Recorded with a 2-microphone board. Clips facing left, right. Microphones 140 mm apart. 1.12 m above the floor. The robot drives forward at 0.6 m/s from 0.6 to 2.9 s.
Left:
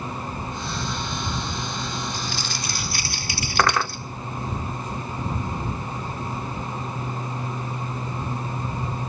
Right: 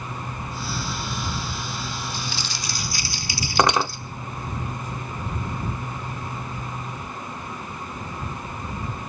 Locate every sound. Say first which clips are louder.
2.1 s crumpling: left 2 dB; 50° left (ahead or behind), 2.5 m; by 4.0 s 55° left (ahead or behind), 2.5 m
3.6 s cutlery clinking: right 2 dB; 20° right (ahead or behind), 0.5 m